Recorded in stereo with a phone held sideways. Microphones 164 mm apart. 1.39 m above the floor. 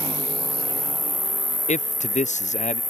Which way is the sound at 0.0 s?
Centre (ahead or behind).